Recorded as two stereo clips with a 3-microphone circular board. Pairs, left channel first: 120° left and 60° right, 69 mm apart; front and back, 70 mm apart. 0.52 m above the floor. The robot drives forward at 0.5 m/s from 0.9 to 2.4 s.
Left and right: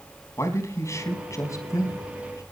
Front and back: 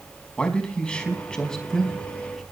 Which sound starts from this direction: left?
A man speaking, at 0.4 s.